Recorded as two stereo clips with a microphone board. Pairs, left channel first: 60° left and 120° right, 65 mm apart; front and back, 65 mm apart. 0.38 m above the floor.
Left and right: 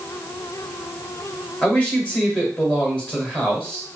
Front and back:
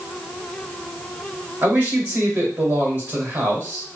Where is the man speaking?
125° left, 2 m.